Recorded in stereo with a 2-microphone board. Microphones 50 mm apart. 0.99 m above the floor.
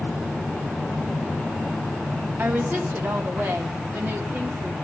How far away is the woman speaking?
About 2.5 m.